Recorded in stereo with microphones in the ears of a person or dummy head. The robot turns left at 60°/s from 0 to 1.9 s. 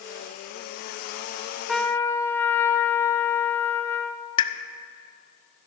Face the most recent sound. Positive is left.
turn(degrees=30)  # may be behind; listen again after turning